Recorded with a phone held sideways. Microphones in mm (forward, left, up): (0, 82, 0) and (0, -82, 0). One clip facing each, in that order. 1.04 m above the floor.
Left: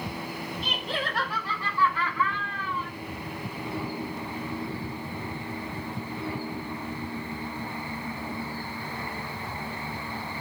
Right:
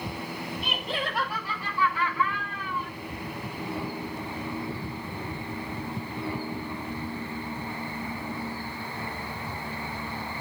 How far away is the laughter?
About 8.5 m.